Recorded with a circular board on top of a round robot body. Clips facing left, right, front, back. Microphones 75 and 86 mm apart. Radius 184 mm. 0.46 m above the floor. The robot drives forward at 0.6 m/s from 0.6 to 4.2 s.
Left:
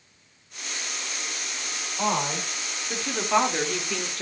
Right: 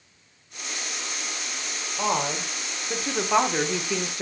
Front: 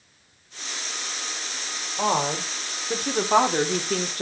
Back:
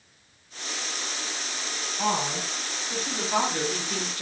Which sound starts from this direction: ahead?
A woman speaking, at 2.0 s.